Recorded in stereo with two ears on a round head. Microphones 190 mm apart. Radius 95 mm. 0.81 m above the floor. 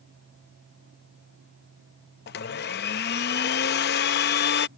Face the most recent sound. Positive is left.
turn(degrees=50)  # may be behind; listen again after turning